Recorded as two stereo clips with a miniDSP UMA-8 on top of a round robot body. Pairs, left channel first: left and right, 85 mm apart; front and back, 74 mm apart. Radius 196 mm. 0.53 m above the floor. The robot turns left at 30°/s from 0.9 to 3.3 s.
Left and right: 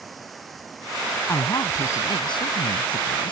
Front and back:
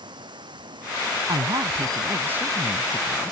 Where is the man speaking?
145° left; by 3.3 s 85° left.